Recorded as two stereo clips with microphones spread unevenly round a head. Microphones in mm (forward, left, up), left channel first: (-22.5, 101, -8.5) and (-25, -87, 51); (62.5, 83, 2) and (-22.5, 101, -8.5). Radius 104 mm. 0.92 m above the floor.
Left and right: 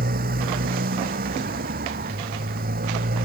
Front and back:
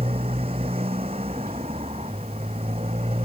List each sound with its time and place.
0.0 s a motorcycle: 130° right